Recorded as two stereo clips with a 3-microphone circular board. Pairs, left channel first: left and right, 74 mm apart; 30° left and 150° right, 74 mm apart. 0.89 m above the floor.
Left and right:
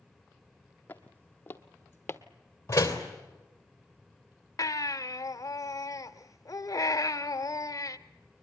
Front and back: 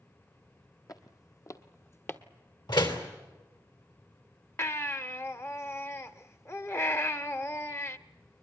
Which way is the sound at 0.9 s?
25° left.